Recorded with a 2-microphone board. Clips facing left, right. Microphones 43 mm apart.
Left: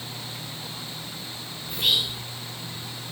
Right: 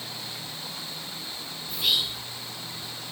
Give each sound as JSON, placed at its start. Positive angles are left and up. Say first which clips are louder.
{"t": 1.7, "sound": "whispering", "louder": "left 2 dB", "side_deg": 60, "distance_m": 2.5}